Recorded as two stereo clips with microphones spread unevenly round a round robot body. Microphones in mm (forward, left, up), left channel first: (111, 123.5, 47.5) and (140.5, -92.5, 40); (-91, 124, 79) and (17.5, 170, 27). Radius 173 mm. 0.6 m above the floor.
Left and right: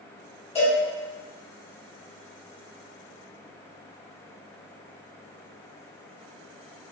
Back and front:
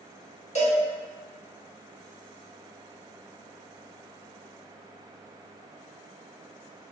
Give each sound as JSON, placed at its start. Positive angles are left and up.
{"t": 0.6, "sound": "a cowbell", "azimuth_deg": 165, "distance_m": 1.7}